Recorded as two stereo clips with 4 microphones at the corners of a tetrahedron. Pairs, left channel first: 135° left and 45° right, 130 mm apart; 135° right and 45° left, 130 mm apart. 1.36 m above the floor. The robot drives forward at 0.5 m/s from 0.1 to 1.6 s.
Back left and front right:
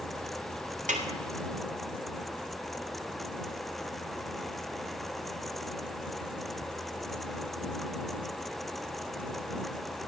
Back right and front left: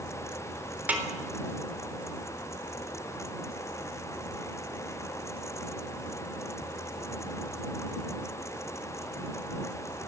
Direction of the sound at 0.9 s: 35° right.